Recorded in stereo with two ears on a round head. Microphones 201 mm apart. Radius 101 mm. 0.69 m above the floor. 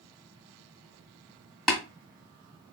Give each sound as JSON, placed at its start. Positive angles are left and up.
{"t": 1.7, "sound": "tapping", "side_deg": 0, "distance_m": 1.8}